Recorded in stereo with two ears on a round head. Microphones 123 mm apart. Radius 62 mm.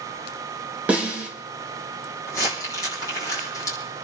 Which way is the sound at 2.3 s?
25° left (ahead or behind).